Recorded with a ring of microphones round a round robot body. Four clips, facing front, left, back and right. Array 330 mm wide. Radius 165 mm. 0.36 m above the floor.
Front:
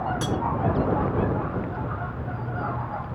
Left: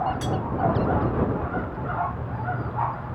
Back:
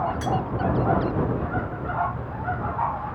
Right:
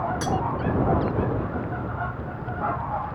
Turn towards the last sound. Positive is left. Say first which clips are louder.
# right 2 dB, back 2 dB
turn(degrees=-35)